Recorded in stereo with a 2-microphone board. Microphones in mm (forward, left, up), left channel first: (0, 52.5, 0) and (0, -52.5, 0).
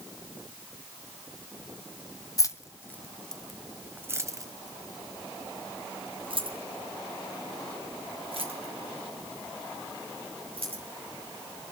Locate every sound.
2.4 s keys jangling: 35° left (ahead or behind), 0.9 m; by 10.8 s 65° right (ahead or behind), 4 m